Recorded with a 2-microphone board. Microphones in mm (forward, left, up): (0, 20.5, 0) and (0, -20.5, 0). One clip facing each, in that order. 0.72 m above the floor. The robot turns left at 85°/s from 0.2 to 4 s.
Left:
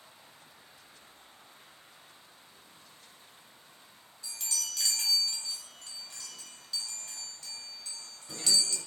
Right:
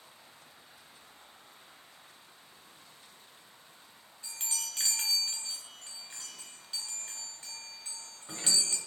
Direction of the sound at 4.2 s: 30° right (ahead or behind).